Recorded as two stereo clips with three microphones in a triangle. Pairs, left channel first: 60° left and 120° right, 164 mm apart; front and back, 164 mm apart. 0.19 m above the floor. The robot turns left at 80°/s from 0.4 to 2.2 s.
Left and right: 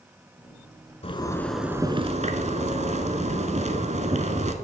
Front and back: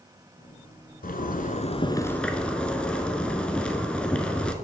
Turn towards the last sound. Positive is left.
turn(degrees=-80)